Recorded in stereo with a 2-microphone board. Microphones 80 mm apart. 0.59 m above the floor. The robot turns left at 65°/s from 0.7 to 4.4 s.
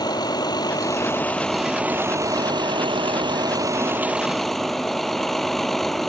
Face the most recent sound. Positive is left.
turn(degrees=175)